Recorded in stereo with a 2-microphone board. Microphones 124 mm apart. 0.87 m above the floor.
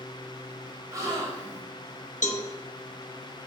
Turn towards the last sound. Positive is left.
turn(degrees=70)  # may be behind; listen again after turning